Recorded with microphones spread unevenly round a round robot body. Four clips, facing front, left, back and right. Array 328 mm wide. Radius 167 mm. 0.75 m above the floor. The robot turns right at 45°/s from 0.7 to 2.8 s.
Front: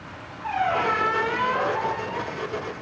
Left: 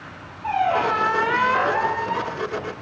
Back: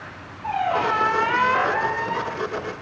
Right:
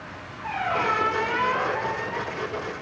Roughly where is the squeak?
Left.